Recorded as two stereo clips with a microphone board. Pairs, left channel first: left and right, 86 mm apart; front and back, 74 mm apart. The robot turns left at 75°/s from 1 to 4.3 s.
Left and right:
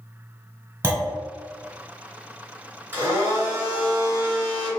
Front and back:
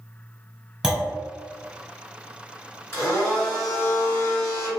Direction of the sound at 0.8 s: 110° right.